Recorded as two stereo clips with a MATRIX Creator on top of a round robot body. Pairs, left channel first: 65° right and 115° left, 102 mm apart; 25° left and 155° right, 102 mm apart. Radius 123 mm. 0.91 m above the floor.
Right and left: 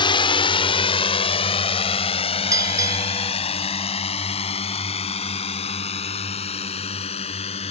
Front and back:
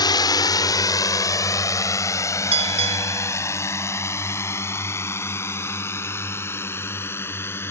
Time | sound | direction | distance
0.0 | a drone | 25° right | ?
2.5 | a bell | 175° left | ?